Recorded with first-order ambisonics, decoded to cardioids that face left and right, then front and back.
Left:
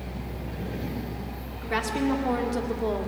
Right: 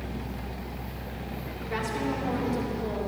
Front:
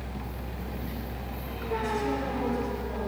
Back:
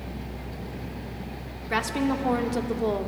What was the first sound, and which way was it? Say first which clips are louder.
A woman speaking: left 4 dB, back 3 dB; 155° left.